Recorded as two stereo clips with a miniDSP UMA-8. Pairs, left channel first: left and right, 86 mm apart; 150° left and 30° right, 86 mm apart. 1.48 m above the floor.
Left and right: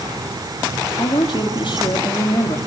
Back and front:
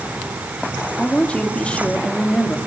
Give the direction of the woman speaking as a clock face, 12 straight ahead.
10 o'clock.